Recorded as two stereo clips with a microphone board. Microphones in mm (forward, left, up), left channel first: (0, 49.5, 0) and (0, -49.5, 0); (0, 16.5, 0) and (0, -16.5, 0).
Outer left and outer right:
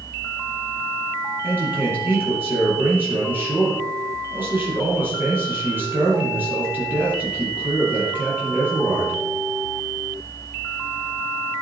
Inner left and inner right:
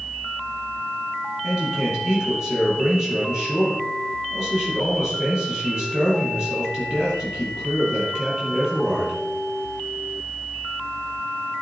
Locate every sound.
1.4 s a man speaking: 20° right (ahead or behind), 6.5 m